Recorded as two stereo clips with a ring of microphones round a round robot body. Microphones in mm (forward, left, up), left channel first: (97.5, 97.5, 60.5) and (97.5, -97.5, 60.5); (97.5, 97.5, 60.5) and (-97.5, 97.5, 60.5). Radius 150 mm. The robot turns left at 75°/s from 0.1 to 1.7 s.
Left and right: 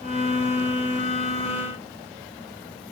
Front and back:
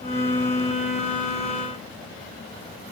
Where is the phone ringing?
No phone ringing in this recording.